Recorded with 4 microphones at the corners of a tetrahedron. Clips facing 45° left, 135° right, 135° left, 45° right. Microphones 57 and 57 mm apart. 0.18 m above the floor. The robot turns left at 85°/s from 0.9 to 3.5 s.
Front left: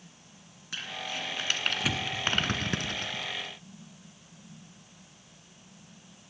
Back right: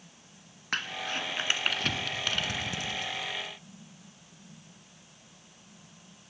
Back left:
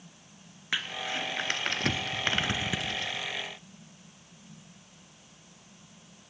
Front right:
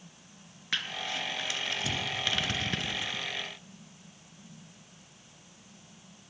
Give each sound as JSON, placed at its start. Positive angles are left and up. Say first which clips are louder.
{"t": 0.7, "sound": "crumpling", "louder": "back right 4 dB, back left 2 dB", "azimuth_deg": -150, "distance_m": 1.7}